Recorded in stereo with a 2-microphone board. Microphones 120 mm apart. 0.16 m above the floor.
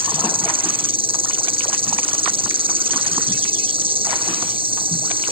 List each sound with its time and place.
0.0 s an insect: 50° right (ahead or behind)